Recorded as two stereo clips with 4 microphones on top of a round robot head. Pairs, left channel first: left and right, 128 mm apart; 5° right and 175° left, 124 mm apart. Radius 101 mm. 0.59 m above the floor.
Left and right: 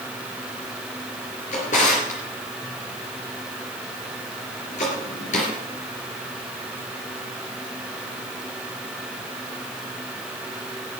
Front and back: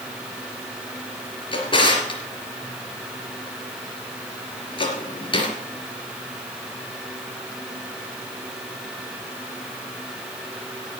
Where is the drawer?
45° left, 3 m.